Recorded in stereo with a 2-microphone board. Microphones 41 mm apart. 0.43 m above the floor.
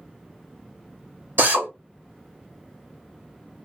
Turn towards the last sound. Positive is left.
turn(degrees=-55)  # may be behind; listen again after turning